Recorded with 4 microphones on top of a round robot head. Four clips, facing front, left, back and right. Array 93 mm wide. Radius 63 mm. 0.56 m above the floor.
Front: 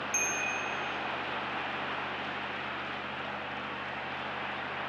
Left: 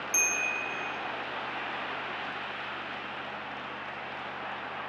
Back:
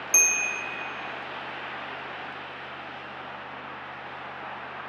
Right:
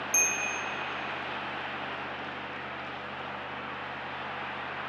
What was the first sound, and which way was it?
A bell, straight behind.